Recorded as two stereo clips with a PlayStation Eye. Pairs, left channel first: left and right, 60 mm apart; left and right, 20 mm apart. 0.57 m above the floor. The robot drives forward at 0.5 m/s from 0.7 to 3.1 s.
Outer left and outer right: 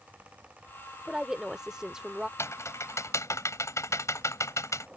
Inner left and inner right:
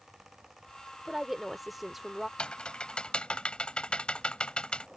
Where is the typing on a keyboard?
50° left (ahead or behind); by 4.9 s 60° left (ahead or behind).